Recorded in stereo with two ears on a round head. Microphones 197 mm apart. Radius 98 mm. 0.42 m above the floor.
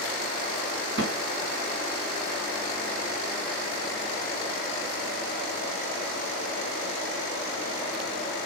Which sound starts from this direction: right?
A snare drum, at 1.0 s.